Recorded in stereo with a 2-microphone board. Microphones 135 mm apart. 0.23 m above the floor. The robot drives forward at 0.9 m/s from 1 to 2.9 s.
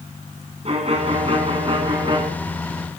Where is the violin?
50° right (ahead or behind), 2.5 m; by 2.2 s 40° right (ahead or behind), 3 m.